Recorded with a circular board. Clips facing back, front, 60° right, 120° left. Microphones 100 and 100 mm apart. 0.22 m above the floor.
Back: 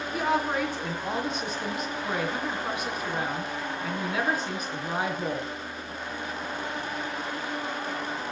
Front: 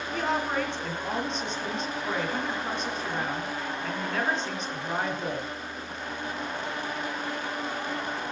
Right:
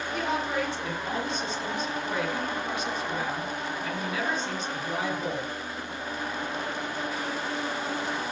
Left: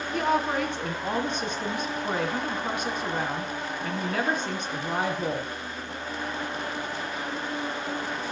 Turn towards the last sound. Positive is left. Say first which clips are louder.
# back 2 dB, left 4 dB
turn(degrees=100)